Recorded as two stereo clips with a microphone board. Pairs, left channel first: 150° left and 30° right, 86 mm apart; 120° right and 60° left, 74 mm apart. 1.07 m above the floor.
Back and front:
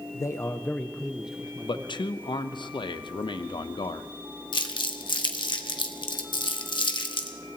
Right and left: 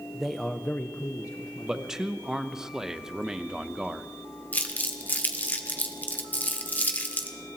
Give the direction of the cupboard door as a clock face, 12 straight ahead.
No cupboard door in this recording.